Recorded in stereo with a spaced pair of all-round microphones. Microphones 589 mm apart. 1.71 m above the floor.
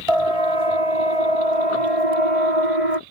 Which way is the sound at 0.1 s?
65° right (ahead or behind).